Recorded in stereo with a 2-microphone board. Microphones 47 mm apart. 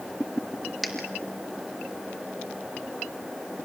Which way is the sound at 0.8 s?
5° left (ahead or behind).